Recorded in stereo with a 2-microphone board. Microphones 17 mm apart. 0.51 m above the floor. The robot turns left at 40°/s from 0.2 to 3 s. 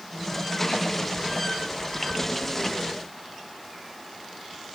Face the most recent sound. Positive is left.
No sound to turn to.